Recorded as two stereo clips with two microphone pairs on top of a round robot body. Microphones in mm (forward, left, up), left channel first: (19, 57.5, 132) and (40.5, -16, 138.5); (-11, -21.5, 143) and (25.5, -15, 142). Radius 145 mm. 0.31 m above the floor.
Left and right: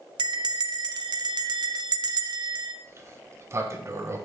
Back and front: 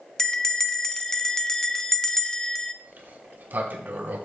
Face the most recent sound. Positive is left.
turn(degrees=-25)